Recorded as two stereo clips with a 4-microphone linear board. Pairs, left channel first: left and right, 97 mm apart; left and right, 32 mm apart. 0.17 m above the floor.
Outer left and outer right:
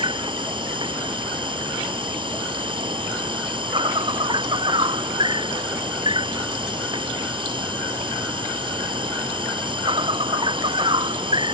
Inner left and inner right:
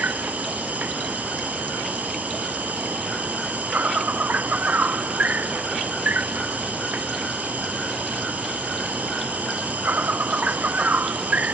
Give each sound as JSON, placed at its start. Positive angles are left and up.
{"t": 0.0, "sound": "an insect", "side_deg": -60}